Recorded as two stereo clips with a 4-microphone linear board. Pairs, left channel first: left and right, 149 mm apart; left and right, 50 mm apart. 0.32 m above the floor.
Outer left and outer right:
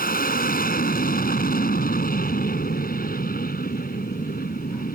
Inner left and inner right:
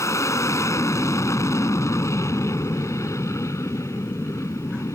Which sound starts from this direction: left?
An aircraft, at 0.0 s.